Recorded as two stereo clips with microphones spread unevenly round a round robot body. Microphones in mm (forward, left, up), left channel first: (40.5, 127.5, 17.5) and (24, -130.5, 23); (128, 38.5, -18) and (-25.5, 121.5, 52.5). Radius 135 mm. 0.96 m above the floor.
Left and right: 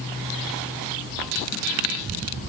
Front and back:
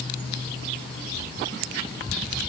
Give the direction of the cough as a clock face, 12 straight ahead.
No cough in this recording.